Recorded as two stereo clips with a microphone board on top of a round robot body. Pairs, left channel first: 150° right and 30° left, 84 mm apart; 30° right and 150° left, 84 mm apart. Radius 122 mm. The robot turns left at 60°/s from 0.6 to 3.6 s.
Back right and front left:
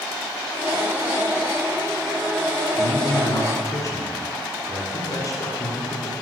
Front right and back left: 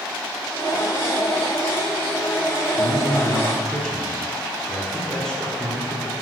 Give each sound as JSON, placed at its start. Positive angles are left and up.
{"t": 2.7, "sound": "a man speaking", "azimuth_deg": -60, "distance_m": 1.7}